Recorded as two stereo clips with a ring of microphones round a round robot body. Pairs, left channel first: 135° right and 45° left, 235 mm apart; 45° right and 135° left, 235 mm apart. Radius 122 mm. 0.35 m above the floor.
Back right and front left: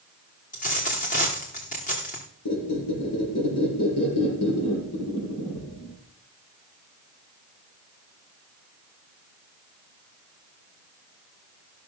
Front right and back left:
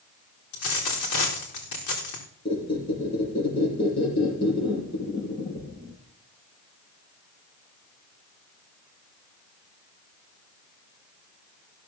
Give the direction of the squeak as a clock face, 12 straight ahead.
4 o'clock.